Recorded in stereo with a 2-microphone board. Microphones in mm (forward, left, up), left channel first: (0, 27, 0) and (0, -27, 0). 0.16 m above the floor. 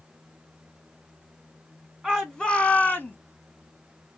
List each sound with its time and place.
2.0 s a shout: centre (ahead or behind), 1.1 m; by 3.2 s 35° left (ahead or behind), 1.3 m